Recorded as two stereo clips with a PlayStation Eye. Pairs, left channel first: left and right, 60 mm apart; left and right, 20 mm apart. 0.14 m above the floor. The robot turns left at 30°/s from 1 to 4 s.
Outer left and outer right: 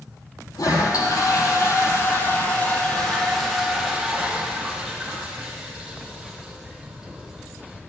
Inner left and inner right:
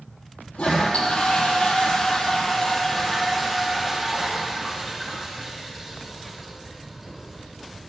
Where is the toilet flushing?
80° left, 4 m; by 7.8 s 10° right, 4 m.